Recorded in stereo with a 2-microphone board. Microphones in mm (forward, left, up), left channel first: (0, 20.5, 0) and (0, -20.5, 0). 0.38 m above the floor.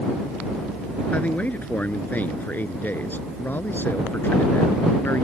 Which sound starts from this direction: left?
A man speaking, at 1.1 s.